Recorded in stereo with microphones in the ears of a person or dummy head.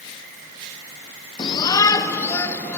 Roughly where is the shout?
Centre.